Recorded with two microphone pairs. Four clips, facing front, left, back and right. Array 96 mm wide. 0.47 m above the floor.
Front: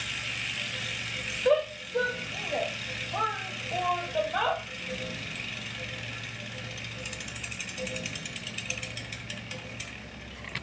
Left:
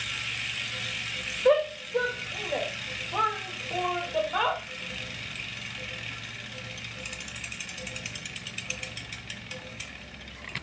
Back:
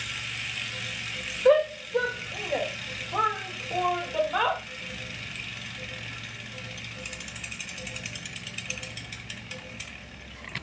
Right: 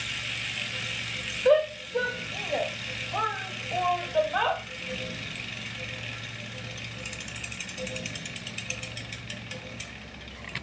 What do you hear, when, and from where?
1.4 s a shout: 155° left, 1.2 m